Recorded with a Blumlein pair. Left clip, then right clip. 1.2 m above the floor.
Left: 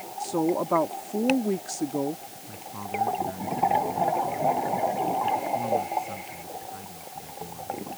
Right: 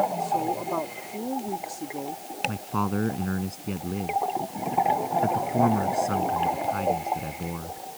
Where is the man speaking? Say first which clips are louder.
Right 2 dB; 55° right.